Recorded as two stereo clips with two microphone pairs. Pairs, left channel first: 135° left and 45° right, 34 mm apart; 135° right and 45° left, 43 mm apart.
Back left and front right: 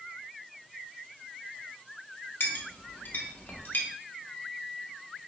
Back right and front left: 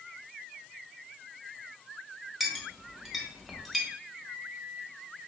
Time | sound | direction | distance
2.4 | a clink | 135° left | 0.7 m
4.3 | a microwave | 75° left | 0.7 m